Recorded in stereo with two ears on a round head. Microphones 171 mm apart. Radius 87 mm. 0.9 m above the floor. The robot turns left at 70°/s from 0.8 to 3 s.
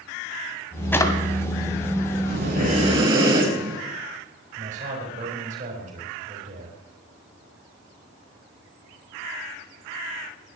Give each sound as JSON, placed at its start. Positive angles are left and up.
{"t": 0.9, "sound": "a drawer", "side_deg": 10, "distance_m": 2.0}
{"t": 2.2, "sound": "breathing", "azimuth_deg": -100, "distance_m": 6.5}
{"t": 4.6, "sound": "a man speaking", "side_deg": -40, "distance_m": 6.0}